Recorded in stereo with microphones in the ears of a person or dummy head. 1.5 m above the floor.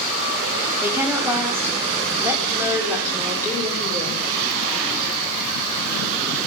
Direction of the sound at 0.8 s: 15° right (ahead or behind).